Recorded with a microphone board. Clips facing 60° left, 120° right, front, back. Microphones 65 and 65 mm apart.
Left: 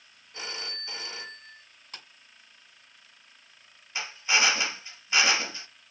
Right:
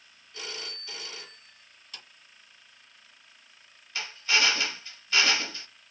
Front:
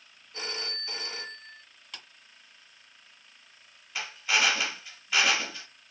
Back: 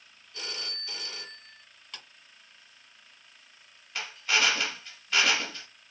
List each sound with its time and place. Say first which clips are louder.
0.3 s a phone ringing: left 2 dB, front 3 dB; 25° left, 0.6 m
1.9 s a clap: left 2 dB, even; 85° left, 1.6 m
4.0 s a drill: left 1 dB, even; 80° left, 0.5 m